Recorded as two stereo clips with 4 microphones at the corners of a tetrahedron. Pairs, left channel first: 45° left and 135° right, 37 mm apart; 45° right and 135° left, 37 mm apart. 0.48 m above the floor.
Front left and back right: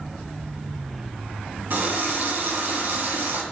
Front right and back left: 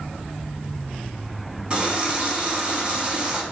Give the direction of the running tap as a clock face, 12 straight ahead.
5 o'clock.